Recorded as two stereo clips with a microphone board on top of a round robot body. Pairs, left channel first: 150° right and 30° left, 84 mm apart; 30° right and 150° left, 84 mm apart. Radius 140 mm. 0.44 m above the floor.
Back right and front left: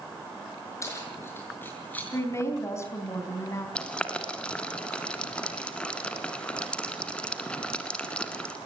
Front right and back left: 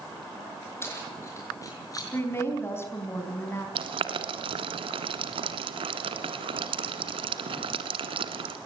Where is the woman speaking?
95° right, 4.5 m.